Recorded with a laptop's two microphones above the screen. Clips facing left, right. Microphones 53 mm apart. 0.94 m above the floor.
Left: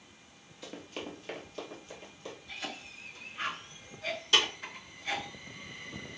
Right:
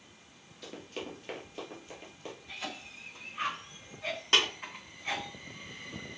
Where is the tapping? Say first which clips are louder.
Even; 45° right (ahead or behind), 2 m.